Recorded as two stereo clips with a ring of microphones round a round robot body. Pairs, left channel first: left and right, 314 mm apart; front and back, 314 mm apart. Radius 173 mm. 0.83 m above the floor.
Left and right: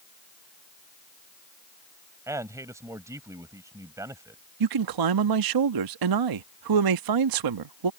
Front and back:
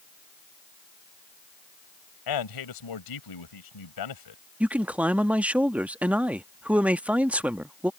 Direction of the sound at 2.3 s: 10° right.